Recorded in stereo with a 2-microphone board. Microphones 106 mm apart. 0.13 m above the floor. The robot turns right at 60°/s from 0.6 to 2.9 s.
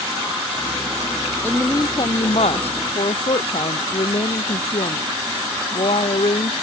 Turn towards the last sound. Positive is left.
turn(degrees=105)